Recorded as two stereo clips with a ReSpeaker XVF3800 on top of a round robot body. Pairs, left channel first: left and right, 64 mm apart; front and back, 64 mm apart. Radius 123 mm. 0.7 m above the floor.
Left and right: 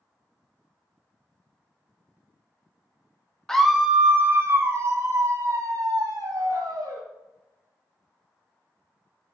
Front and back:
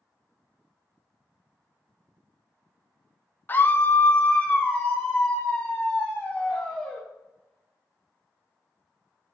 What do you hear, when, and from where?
3.5 s a scream: 15° left, 0.7 m; by 7.0 s 90° right, 1.9 m